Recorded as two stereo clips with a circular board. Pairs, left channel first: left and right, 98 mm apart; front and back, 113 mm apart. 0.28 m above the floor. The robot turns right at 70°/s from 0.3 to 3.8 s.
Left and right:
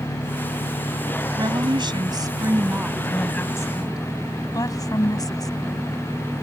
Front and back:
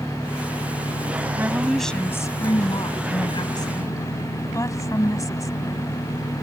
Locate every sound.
0.0 s an engine running: 95° left; by 6.4 s 20° right
1.4 s a woman speaking: 120° right; by 5.9 s 50° left